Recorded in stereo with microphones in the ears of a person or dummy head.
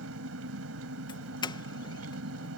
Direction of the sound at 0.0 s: 80° right.